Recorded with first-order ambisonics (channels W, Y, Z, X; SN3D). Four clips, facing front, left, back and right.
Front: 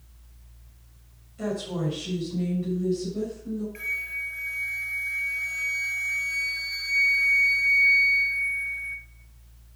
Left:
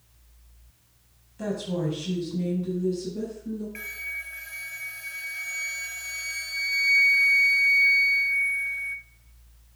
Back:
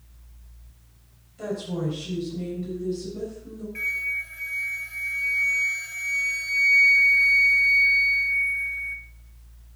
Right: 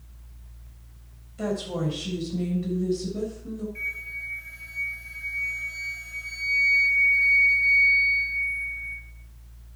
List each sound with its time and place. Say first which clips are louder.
1.4 s a woman speaking: right 1 dB, even; 80° right, 7 m; by 3.6 s 90° right, 6.5 m
3.8 s a flute: right 2 dB, back 7 dB; 85° left, 1.3 m